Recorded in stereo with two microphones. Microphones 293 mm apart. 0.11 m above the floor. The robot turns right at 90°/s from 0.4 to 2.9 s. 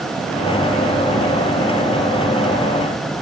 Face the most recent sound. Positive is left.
No sound to turn to.